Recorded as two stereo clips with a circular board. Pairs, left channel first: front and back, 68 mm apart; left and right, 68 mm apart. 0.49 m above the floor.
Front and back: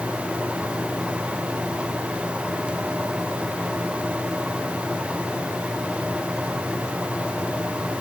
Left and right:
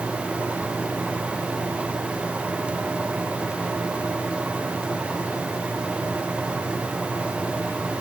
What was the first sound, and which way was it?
Only background noise.